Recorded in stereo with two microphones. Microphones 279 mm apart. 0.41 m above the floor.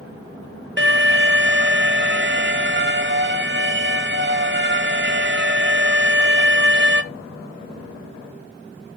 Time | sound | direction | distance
0.8 | an alarm | 45° right (ahead or behind) | 1.0 m